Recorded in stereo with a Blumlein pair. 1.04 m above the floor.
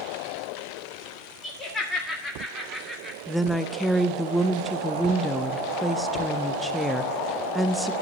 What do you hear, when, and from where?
1.4 s laughter: 20° left, 1.8 m; by 3.2 s 10° right, 1.9 m
3.3 s a woman speaking: straight ahead, 0.5 m